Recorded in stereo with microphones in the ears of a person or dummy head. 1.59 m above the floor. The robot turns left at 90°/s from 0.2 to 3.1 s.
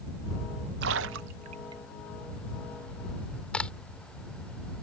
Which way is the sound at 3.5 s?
5° left (ahead or behind).